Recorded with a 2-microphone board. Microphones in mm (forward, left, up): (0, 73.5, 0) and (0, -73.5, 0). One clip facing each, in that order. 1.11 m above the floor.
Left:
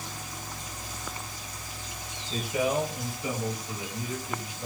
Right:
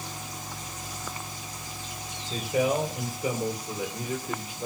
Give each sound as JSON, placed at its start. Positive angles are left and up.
{"t": 2.3, "sound": "a man speaking", "side_deg": -35, "distance_m": 4.5}